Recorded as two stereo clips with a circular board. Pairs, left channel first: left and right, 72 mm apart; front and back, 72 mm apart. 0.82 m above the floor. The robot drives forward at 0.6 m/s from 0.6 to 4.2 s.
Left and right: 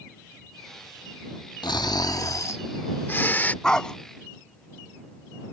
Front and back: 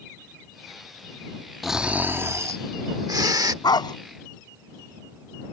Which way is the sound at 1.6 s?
95° left.